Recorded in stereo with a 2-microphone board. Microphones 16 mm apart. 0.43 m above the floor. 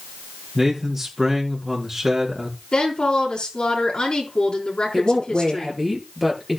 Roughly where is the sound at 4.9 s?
Centre.